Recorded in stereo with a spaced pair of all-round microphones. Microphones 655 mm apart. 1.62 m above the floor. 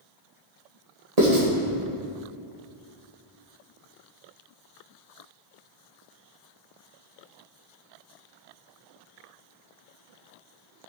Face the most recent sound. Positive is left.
turn(degrees=-70)  # may be behind; listen again after turning